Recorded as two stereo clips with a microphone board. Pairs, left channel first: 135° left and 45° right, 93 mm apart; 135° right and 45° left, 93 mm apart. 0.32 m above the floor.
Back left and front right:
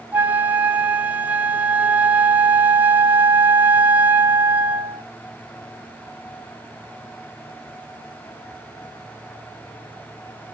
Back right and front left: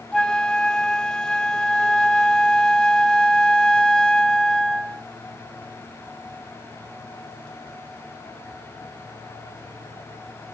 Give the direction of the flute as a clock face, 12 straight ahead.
2 o'clock.